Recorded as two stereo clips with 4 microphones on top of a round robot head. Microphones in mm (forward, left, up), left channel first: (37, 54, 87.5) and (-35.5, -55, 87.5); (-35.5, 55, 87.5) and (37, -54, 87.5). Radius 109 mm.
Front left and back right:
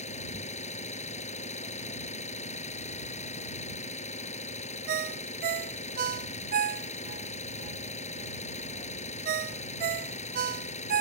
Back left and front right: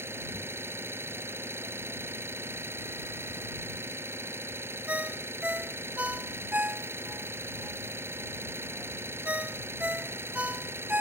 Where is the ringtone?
135° right.